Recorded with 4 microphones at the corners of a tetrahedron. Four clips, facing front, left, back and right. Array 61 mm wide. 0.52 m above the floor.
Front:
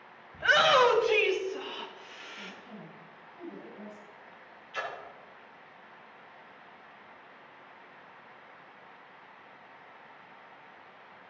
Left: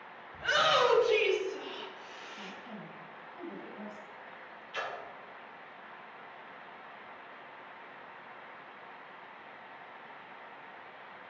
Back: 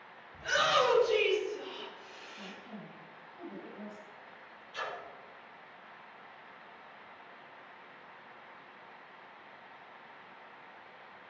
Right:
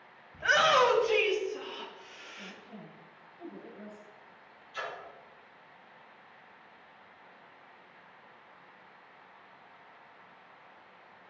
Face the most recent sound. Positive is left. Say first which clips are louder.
# left 1 dB, front 3 dB
turn(degrees=50)